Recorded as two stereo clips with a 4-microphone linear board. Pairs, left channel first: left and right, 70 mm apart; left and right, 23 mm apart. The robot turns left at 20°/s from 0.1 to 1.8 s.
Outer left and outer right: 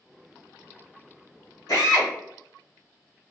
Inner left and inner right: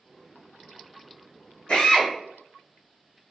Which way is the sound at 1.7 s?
65° left (ahead or behind).